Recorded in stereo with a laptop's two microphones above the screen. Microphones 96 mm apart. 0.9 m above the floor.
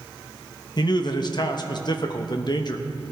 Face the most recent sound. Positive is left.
turn(degrees=50)  # may be behind; listen again after turning